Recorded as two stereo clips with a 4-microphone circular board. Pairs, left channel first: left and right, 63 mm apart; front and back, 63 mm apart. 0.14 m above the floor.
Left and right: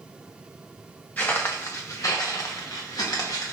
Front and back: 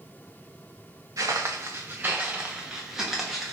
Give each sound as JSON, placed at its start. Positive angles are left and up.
{"t": 1.2, "sound": "footsteps", "azimuth_deg": 155, "distance_m": 1.1}